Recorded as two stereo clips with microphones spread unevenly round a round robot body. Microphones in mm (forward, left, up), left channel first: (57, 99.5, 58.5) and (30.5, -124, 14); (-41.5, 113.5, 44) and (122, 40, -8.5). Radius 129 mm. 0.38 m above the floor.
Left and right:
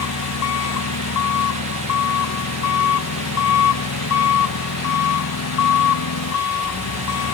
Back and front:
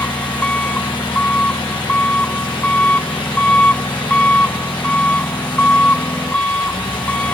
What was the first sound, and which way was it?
An engine running, 75° left.